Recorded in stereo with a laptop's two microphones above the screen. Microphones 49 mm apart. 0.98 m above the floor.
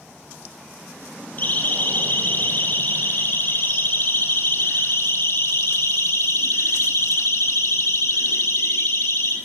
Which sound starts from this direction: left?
A siren, at 1.4 s.